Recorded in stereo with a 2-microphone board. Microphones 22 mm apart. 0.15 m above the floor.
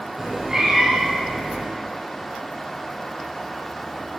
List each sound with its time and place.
0.2 s a cat meowing: 25° right (ahead or behind), 1.4 m